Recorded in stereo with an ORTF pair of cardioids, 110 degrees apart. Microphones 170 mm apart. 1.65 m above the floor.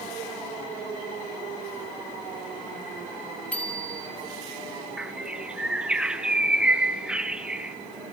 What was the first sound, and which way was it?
A bicycle bell, 10° left.